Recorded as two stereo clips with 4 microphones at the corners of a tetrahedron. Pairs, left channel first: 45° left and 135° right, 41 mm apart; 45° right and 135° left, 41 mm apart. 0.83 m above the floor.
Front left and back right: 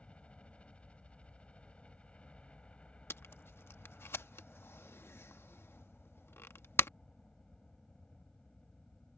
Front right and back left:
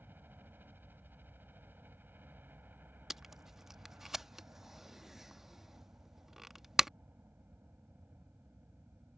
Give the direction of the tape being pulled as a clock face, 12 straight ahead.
10 o'clock.